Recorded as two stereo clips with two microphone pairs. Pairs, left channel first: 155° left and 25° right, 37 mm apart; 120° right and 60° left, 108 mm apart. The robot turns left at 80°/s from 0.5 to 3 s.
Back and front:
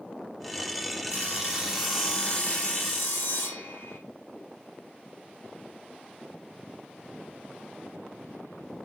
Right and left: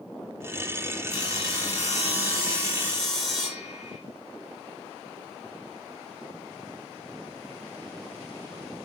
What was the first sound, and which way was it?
Sawing, 55° right.